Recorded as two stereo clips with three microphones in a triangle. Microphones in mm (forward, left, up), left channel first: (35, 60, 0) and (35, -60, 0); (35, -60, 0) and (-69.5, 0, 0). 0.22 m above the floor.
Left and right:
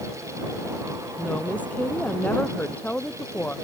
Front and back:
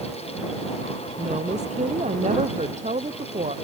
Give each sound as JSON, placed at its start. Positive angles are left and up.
{"t": 1.2, "sound": "a woman speaking", "azimuth_deg": 165}